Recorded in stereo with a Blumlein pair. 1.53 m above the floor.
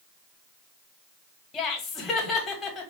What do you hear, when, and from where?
1.5 s laughter: 20° left, 1.6 m